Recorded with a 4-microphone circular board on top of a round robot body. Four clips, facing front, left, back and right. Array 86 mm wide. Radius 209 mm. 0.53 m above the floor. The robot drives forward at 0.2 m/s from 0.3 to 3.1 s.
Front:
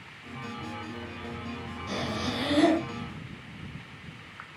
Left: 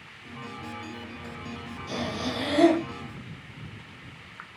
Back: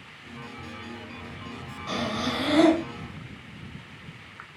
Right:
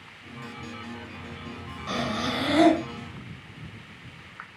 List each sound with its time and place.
1.9 s breathing: 135° right, 3 m